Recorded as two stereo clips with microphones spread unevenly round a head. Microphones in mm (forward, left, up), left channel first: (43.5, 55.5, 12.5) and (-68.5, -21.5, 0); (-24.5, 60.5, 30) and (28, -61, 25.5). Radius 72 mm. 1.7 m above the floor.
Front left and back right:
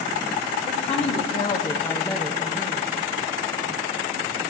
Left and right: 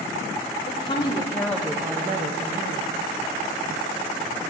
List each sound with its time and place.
0.7 s a woman speaking: 65° left, 1.1 m; by 2.9 s 75° right, 1.0 m